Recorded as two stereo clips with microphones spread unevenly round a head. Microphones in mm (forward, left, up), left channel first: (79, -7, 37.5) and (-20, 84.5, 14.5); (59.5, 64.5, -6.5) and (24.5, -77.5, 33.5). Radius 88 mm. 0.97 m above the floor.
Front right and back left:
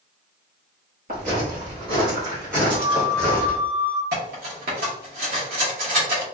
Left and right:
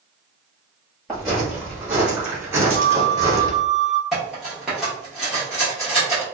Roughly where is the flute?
Right.